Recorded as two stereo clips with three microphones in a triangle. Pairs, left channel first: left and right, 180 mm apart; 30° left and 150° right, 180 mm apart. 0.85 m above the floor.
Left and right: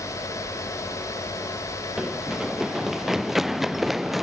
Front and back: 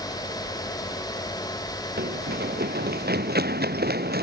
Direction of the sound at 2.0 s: Straight behind.